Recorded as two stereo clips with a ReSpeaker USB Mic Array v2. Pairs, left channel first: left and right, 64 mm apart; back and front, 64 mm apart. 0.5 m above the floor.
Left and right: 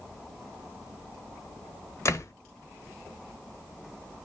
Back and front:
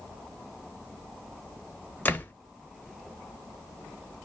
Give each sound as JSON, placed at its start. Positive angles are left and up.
{"t": 2.0, "sound": "a door slam", "azimuth_deg": 120, "distance_m": 0.8}